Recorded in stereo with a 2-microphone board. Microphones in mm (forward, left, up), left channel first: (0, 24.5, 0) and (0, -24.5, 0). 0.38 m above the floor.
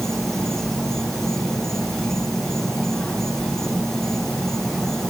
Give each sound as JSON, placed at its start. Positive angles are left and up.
{"t": 0.0, "sound": "an insect", "side_deg": 10}